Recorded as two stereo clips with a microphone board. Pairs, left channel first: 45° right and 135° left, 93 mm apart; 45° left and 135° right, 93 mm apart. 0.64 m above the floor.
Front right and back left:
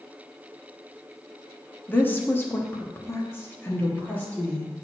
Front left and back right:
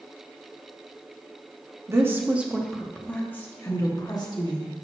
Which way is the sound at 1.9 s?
100° right.